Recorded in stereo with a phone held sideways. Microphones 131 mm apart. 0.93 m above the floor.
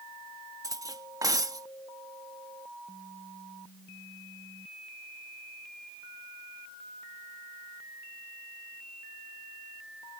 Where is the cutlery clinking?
25° right (ahead or behind).